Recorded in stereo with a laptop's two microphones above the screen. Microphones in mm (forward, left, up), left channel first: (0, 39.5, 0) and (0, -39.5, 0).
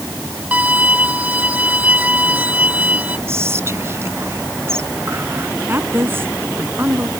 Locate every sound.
0.5 s a violin: 20° right (ahead or behind)
3.3 s whispering: 35° right (ahead or behind)
5.7 s a woman speaking: 30° right (ahead or behind)